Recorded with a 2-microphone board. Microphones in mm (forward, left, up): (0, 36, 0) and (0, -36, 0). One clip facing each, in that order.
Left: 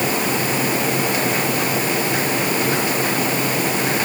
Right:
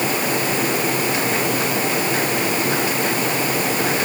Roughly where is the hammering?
I don't hear hammering.